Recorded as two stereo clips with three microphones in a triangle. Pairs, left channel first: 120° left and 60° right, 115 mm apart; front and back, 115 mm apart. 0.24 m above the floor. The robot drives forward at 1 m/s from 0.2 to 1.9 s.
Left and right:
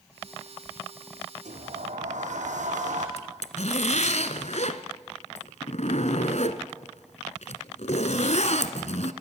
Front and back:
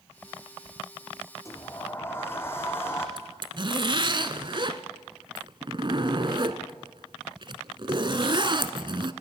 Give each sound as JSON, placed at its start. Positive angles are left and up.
{"t": 1.4, "sound": "a sliding door", "azimuth_deg": -65, "distance_m": 5.0}
{"t": 3.2, "sound": "a zipper", "azimuth_deg": 135, "distance_m": 1.2}